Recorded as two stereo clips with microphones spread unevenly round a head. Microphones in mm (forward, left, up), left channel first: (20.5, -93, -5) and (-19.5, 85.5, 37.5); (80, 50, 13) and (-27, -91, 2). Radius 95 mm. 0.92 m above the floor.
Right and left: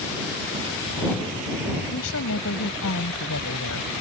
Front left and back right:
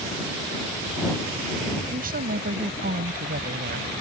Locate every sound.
1.9 s a woman speaking: 85° right